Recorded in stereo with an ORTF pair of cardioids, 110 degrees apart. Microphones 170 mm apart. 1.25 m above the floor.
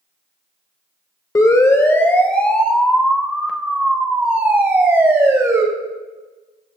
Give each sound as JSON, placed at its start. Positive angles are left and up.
{"t": 1.4, "sound": "a siren", "azimuth_deg": 20, "distance_m": 3.5}